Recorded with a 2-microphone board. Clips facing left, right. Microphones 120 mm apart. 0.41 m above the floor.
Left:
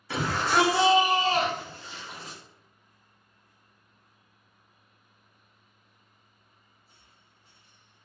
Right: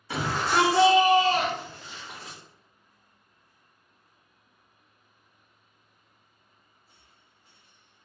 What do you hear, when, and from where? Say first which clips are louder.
0.1 s a shout: even; 10° right (ahead or behind), 0.9 m; by 2.4 s 30° left (ahead or behind), 1.7 m